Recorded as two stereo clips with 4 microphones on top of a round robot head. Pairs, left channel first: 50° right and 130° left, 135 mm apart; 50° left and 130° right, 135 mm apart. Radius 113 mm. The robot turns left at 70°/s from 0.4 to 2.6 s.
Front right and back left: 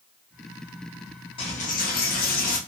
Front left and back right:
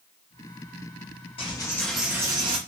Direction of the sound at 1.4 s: Straight ahead.